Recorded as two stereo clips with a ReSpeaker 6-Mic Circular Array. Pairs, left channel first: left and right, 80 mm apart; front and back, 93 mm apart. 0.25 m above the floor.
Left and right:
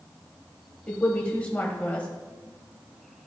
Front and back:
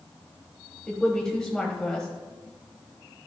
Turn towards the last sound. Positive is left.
turn(degrees=65)